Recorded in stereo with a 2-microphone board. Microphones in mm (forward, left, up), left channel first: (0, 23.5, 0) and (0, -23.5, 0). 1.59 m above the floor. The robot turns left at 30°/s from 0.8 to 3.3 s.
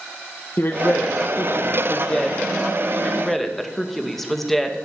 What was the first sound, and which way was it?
A woman speaking, 60° left.